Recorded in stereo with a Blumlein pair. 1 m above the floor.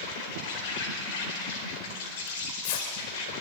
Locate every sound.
0.0 s an insect: 50° left, 4.5 m
2.3 s tearing paper: 50° left, 2 m